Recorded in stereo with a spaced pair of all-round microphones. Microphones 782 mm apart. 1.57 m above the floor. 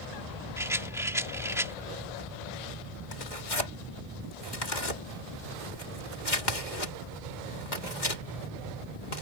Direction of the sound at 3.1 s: 70° left (ahead or behind).